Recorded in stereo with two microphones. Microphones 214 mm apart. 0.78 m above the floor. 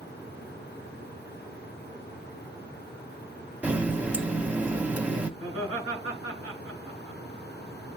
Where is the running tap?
5° right (ahead or behind), 0.8 m.